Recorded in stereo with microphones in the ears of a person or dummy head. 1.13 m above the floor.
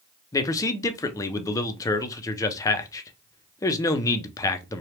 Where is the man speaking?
15° left (ahead or behind), 0.6 m.